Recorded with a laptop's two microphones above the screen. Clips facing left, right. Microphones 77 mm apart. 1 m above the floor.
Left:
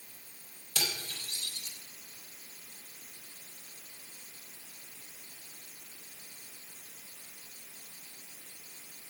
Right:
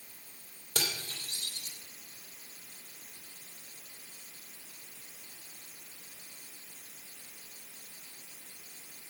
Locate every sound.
0.8 s cutlery clinking: 55° right (ahead or behind), 2.5 m